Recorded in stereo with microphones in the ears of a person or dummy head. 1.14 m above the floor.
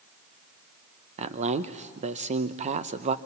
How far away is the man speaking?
About 0.8 m.